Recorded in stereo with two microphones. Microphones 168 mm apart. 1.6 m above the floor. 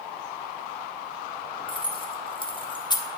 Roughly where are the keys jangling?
Left.